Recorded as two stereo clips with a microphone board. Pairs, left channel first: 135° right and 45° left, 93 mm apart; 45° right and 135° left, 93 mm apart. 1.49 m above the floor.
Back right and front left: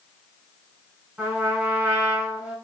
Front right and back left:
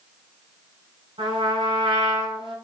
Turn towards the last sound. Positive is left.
turn(degrees=115)